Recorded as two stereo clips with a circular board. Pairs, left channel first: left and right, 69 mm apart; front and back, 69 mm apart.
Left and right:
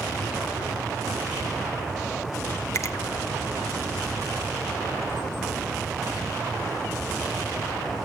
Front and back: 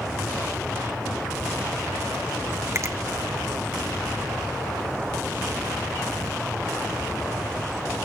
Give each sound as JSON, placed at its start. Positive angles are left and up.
{"t": 2.8, "sound": "a finger snap", "azimuth_deg": 135, "distance_m": 1.3}